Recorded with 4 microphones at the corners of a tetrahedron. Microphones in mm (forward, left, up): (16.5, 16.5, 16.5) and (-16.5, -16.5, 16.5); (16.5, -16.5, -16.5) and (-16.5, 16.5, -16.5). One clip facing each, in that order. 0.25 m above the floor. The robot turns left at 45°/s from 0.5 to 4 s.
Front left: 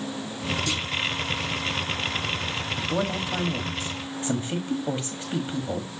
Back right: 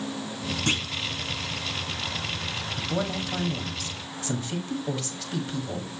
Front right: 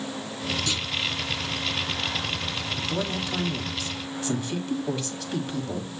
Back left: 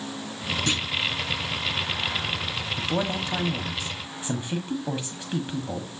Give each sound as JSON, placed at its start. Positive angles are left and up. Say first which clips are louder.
{"t": 0.7, "sound": "a clunk", "louder": "back right 2 dB, back left 3 dB", "azimuth_deg": -170, "distance_m": 1.5}
{"t": 2.8, "sound": "a man speaking", "louder": "front left 2 dB, back left 3 dB", "azimuth_deg": 130, "distance_m": 1.3}